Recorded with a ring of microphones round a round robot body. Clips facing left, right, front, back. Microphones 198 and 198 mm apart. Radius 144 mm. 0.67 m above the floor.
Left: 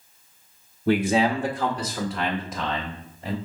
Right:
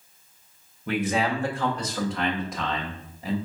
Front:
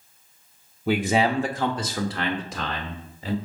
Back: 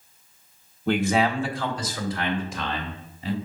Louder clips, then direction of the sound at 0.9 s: Left 5 dB, even; 85° left.